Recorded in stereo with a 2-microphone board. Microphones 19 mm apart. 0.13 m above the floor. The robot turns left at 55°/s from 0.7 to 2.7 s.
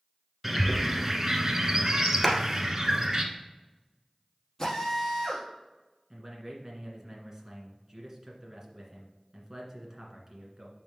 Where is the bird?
15° right, 1.2 m; by 3.2 s 125° right, 1.2 m.